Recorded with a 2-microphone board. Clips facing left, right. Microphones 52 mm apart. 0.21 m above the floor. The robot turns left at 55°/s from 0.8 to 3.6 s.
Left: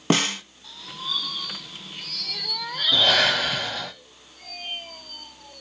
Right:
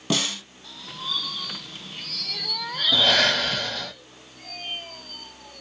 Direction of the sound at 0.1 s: 40° left (ahead or behind).